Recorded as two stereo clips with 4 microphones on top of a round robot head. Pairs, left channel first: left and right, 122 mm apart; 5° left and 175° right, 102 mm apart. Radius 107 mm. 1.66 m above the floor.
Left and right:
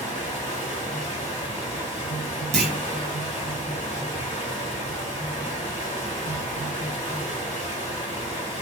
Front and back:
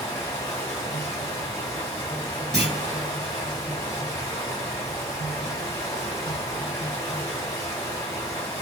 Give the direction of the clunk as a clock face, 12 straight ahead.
3 o'clock.